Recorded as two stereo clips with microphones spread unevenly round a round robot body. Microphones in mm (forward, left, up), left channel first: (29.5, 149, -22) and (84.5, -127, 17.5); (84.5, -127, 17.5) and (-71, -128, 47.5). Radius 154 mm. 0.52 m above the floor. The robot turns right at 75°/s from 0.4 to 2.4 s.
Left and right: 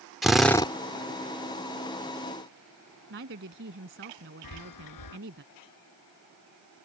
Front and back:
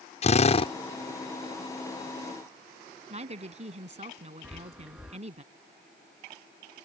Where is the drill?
15° left; by 0.7 s 40° left.